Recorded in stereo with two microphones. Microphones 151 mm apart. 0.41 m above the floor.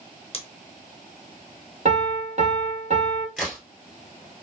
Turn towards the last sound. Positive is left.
turn(degrees=-5)  # may be behind; listen again after turning